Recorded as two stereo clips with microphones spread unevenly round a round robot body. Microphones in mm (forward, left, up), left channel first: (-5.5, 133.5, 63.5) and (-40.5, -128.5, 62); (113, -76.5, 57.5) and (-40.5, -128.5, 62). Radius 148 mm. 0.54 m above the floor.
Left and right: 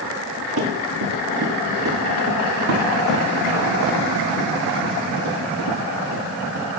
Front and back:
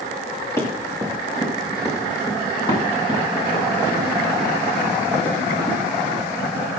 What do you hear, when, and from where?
0.6 s running footsteps: 55° right, 5.5 m; by 6.7 s 35° right, 9 m